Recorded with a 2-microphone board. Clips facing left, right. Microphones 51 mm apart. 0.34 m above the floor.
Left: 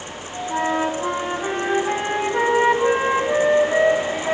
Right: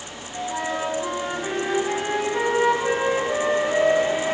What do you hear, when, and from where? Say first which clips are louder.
0.5 s a flute: left 5 dB; 20° left (ahead or behind), 1.9 m